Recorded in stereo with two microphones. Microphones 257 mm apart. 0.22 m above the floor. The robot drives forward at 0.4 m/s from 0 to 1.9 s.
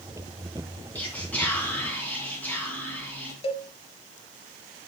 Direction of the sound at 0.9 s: 5° left (ahead or behind).